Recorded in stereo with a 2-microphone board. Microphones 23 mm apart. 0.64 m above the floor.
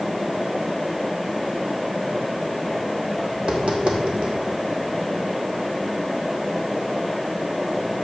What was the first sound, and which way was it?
Tapping, 60° right (ahead or behind).